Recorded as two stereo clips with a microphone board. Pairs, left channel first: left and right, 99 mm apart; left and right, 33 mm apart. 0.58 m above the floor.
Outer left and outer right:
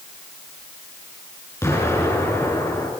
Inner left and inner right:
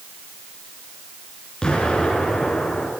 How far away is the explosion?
About 6.5 m.